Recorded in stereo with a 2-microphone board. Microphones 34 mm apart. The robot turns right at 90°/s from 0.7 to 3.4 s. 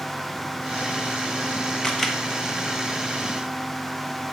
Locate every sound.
1.8 s a camera shutter: 25° left (ahead or behind), 1.0 m; by 2.2 s 5° right (ahead or behind), 1.0 m